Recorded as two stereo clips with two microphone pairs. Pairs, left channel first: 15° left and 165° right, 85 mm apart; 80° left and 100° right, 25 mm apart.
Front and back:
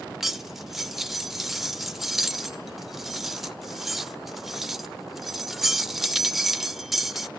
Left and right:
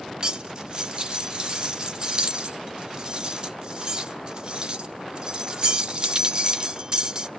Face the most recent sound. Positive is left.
turn(degrees=-85)